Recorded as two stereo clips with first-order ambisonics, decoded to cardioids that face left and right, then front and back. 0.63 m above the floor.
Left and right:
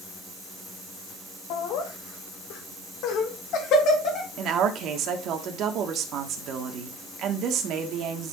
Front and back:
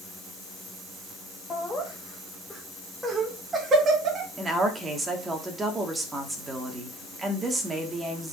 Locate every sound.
1.5 s laughter: 75° left, 2.5 m; by 4.3 s 135° left, 1.9 m
4.4 s a woman speaking: 110° right, 1.3 m